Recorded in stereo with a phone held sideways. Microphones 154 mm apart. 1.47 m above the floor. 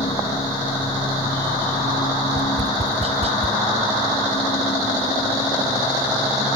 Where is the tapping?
45° right (ahead or behind).